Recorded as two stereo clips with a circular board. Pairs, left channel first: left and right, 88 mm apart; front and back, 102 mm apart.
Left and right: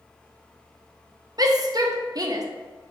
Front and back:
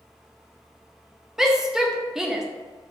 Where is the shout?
95° right, 0.6 m.